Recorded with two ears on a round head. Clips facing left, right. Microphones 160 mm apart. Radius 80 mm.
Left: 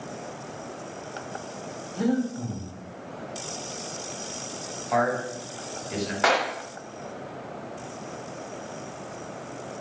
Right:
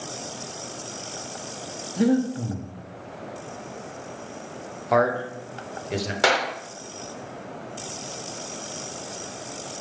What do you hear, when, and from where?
2.0 s breathing: 25° right (ahead or behind), 0.6 m
4.9 s a man speaking: 55° right (ahead or behind), 0.8 m
6.2 s a clap: 35° right (ahead or behind), 0.9 m